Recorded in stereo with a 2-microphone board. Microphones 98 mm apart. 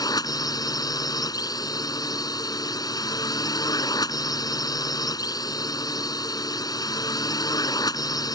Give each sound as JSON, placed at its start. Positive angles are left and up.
{"t": 0.0, "sound": "a drone", "side_deg": 40}